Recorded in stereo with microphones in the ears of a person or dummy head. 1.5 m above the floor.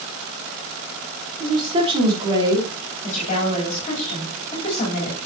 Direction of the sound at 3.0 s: 40° left (ahead or behind).